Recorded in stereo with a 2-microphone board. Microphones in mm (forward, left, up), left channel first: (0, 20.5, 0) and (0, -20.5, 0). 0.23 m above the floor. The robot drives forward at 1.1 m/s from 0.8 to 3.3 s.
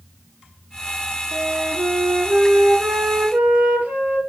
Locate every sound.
1.3 s a flute: 65° right (ahead or behind), 1.9 m; by 4.2 s 35° right (ahead or behind), 3 m